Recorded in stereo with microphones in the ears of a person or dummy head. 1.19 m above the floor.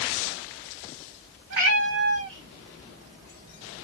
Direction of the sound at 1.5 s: 60° right (ahead or behind).